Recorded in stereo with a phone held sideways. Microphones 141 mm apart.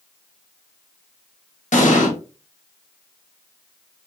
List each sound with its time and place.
1.7 s an explosion: 60° left (ahead or behind), 0.8 m